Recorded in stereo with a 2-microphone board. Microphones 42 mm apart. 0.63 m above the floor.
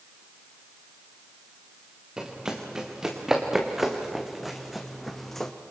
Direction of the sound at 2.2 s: 20° right (ahead or behind).